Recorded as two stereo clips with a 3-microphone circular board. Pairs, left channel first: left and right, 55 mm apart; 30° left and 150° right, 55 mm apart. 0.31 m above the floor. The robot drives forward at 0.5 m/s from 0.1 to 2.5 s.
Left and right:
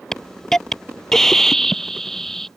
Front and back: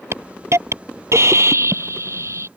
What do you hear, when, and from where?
0.1 s a hiss: 170° left; by 2.5 s 175° left